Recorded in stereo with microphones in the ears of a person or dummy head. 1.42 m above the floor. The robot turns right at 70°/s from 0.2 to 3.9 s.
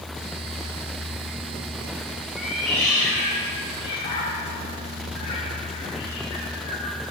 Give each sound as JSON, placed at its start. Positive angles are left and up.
{"t": 2.4, "sound": "a cat meowing", "side_deg": -5, "distance_m": 1.0}